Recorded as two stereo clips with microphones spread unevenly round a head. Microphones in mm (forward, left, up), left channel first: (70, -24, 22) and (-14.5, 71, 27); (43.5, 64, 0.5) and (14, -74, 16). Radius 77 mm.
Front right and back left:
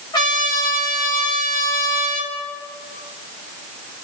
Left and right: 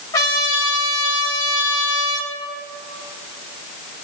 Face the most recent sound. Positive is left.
turn(degrees=10)